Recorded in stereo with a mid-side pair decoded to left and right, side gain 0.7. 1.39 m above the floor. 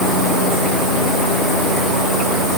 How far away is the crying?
No crying in this recording.